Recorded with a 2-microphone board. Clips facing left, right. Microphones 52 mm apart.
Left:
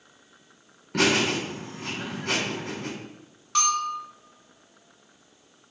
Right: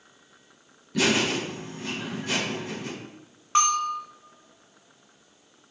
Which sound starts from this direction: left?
Laughter, at 0.9 s.